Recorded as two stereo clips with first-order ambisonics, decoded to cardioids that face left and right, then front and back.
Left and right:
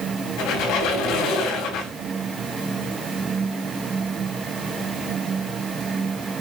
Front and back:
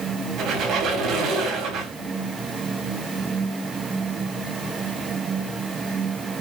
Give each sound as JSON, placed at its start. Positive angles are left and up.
{"t": 0.4, "sound": "a squeak", "azimuth_deg": 130, "distance_m": 4.0}